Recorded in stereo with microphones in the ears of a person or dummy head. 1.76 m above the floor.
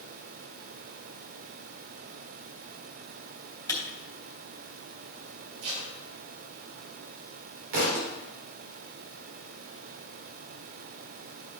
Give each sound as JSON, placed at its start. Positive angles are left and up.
{"t": 3.7, "sound": "a camera shutter", "side_deg": 20, "distance_m": 3.0}
{"t": 5.6, "sound": "tape being pulled", "side_deg": -55, "distance_m": 4.0}
{"t": 7.7, "sound": "a thud", "side_deg": -45, "distance_m": 2.0}